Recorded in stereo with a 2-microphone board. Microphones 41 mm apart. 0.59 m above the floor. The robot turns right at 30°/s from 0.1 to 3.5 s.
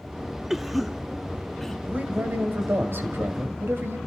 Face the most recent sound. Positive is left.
turn(degrees=-75)